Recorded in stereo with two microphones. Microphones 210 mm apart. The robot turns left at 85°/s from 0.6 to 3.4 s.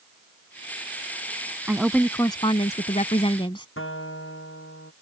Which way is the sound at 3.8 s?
80° left.